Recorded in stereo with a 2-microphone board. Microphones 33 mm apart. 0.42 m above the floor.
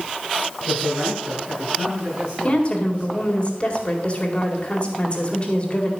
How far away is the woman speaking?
About 2.0 m.